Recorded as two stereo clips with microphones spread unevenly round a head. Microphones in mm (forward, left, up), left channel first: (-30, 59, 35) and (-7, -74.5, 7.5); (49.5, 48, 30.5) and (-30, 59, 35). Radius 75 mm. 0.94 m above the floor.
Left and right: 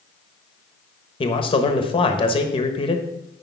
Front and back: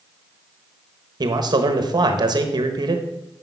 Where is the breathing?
I don't hear breathing.